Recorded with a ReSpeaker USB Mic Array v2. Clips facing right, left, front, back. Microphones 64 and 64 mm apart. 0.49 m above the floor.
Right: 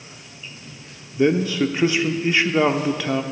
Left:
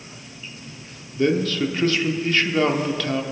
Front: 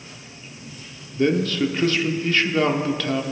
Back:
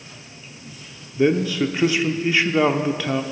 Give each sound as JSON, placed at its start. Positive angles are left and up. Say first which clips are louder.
{"t": 1.2, "sound": "a man speaking", "louder": "right 2 dB, back 1 dB", "azimuth_deg": -125, "distance_m": 0.7}